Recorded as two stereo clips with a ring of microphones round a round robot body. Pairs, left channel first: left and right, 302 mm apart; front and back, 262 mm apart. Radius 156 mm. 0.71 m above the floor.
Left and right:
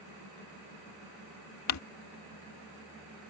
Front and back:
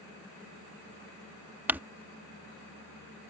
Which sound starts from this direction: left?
Crumpling, at 1.7 s.